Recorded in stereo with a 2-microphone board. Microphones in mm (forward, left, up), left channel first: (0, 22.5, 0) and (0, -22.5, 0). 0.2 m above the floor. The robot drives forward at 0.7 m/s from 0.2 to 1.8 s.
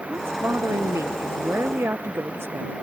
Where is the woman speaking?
70° right (ahead or behind); by 2.7 s 65° right (ahead or behind).